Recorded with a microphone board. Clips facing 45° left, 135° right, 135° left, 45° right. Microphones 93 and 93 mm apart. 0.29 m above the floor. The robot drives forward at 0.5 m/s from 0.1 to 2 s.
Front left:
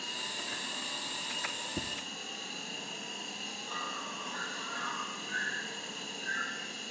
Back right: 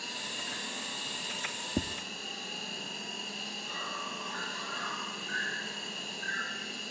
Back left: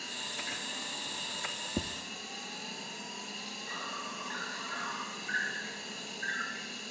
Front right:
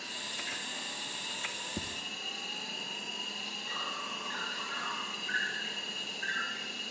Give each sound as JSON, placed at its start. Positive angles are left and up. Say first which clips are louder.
{"t": 0.0, "sound": "an insect", "louder": "even, back left 1 dB", "azimuth_deg": -135, "distance_m": 8.5}
{"t": 1.8, "sound": "tapping", "louder": "back right 7 dB, back left 6 dB", "azimuth_deg": -160, "distance_m": 1.2}